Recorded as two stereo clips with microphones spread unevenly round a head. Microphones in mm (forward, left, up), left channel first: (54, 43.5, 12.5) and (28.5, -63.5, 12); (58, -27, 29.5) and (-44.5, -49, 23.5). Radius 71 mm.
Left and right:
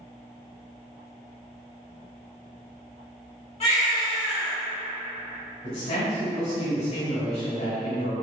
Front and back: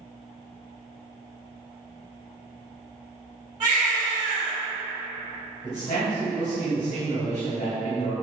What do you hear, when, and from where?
3.6 s a baby crying: 130° left, 1.8 m
5.6 s a man speaking: 70° left, 1.2 m